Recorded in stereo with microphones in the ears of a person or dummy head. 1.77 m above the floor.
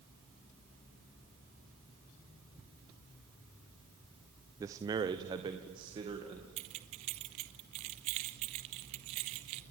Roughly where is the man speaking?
Centre.